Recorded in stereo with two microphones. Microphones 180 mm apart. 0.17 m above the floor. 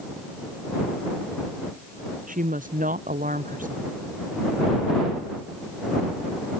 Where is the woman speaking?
50° right (ahead or behind).